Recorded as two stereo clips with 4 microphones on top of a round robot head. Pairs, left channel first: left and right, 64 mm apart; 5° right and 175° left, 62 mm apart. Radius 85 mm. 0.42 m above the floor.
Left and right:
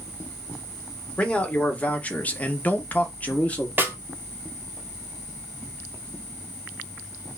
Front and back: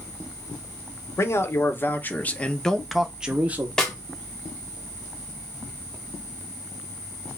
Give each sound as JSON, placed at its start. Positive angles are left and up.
{"t": 1.2, "sound": "a man speaking", "azimuth_deg": 20, "distance_m": 1.3}
{"t": 3.8, "sound": "a snare drum", "azimuth_deg": -80, "distance_m": 1.5}